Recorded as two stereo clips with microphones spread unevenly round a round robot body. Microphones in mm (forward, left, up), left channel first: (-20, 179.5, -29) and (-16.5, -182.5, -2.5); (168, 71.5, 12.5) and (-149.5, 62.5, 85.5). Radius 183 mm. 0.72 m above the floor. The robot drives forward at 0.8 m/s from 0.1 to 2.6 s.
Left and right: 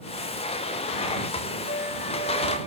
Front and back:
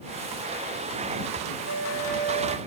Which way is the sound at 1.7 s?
150° left.